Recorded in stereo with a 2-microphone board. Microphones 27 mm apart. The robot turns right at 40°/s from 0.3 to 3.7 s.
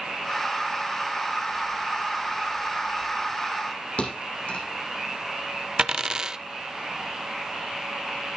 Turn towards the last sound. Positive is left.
turn(degrees=-25)  # may be behind; listen again after turning